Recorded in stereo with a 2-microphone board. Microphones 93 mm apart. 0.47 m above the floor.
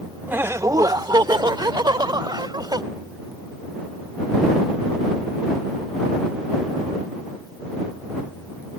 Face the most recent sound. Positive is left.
turn(degrees=-50)  # may be behind; listen again after turning